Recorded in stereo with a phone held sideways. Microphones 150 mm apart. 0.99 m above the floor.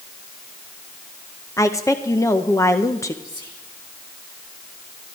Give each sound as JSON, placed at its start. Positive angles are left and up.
{"t": 1.6, "sound": "a woman speaking", "side_deg": 20, "distance_m": 0.8}
{"t": 3.2, "sound": "whispering", "side_deg": -35, "distance_m": 3.5}